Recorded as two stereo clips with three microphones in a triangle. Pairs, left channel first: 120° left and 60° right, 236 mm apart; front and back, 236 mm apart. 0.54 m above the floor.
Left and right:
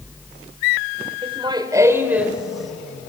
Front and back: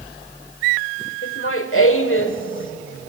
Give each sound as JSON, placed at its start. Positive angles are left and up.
{"t": 1.2, "sound": "laughter", "azimuth_deg": 0, "distance_m": 1.6}